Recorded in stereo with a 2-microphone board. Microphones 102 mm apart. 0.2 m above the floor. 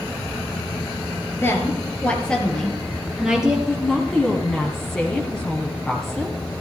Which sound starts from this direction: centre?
A woman speaking, at 3.7 s.